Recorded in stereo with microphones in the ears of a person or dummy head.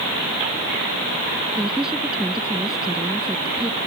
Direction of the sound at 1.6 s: Centre (ahead or behind).